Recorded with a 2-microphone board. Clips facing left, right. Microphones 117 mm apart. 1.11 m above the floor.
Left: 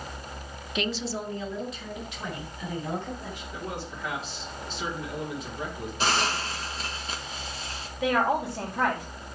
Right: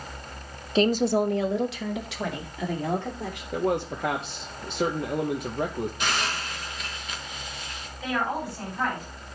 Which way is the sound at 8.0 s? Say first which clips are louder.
Left 4 dB; 70° left (ahead or behind).